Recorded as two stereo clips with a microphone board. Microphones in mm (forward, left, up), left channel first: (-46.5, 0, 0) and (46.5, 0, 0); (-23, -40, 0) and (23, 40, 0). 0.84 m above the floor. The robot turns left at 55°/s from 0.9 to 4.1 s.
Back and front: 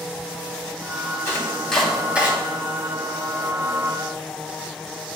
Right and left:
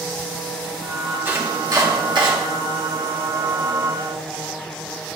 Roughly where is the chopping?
Behind left.